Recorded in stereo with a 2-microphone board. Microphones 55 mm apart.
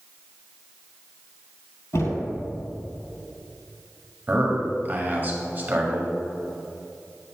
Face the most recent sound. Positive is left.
turn(degrees=-35)  # may be behind; listen again after turning